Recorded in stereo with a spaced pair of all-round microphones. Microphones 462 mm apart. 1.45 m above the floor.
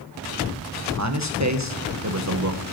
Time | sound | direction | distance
1.0 | a man speaking | 35° right (ahead or behind) | 1.2 m